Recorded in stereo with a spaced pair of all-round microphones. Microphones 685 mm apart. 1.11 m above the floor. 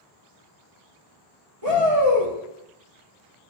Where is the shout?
60° right (ahead or behind), 3 m.